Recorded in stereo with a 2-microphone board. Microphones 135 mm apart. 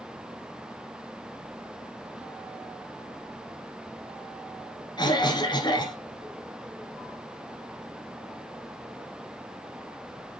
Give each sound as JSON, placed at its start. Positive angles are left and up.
{"t": 5.0, "sound": "a cough", "side_deg": 35, "distance_m": 1.5}